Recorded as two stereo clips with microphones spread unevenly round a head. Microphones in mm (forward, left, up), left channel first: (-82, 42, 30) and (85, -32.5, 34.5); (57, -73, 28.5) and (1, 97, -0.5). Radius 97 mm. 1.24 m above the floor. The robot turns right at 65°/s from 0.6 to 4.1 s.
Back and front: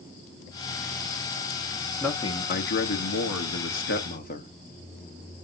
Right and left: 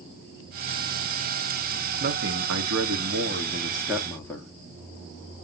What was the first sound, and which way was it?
A man speaking, 70° left.